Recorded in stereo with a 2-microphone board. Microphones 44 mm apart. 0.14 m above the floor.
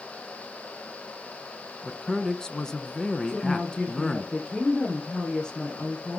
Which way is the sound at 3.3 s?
20° left (ahead or behind).